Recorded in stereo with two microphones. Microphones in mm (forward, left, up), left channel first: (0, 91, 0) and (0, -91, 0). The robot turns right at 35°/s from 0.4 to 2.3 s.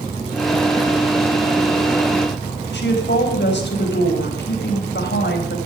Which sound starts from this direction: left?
A woman speaking, at 2.7 s.